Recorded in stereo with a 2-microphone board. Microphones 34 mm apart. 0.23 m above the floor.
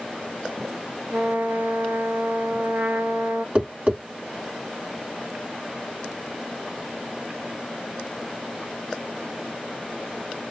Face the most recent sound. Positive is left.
turn(degrees=-35)  # may be behind; listen again after turning